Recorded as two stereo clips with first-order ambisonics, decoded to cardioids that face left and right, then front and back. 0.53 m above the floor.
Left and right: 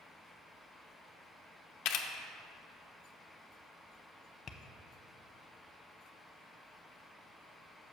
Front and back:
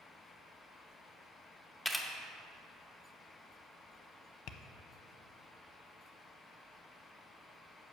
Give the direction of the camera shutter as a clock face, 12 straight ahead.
9 o'clock.